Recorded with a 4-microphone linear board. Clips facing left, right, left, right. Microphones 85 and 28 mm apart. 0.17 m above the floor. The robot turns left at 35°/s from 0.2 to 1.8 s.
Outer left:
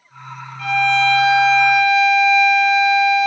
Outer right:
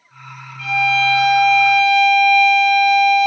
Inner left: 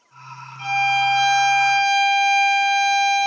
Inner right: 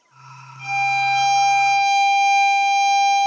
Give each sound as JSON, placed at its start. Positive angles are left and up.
{"t": 0.6, "sound": "a violin", "azimuth_deg": 70, "distance_m": 1.7}